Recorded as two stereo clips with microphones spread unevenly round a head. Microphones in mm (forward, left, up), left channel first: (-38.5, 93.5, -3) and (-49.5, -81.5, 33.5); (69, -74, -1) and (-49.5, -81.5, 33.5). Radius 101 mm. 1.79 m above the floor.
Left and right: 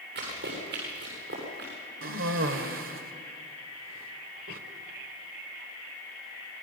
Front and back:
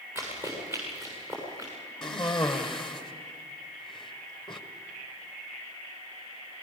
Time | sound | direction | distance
0.1 | running footsteps | 115° right | 8 m
2.0 | a cough | 85° right | 1.5 m